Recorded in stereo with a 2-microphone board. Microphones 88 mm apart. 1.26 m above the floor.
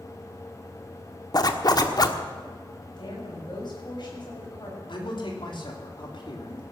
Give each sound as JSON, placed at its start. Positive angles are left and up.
{"t": 1.3, "sound": "a zipper", "side_deg": 50, "distance_m": 1.2}
{"t": 3.0, "sound": "a woman speaking", "side_deg": 60, "distance_m": 6.0}
{"t": 4.9, "sound": "a man speaking", "side_deg": 65, "distance_m": 3.5}